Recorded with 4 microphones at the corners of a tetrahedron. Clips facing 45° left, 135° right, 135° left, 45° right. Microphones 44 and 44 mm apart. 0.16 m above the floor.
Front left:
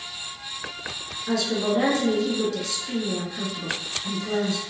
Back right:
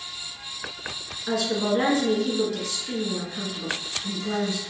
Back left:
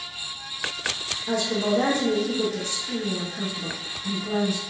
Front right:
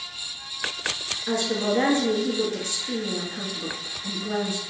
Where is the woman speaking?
75° right, 1.7 m.